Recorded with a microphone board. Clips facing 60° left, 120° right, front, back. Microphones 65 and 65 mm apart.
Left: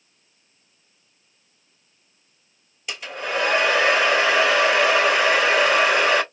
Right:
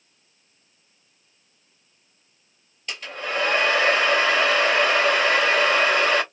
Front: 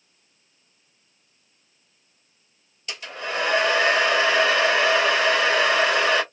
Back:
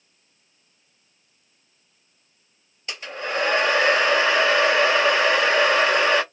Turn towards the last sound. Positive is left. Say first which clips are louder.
# left 2 dB, back 2 dB
turn(degrees=135)